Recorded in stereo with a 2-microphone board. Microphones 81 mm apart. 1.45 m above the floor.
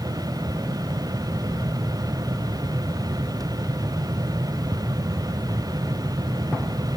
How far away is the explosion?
No explosion in this recording.